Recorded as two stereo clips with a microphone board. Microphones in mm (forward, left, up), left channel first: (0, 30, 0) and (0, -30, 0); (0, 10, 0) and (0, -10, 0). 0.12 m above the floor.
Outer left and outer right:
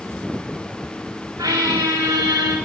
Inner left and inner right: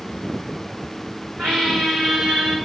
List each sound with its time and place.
1.4 s a squeak: 85° right, 1.5 m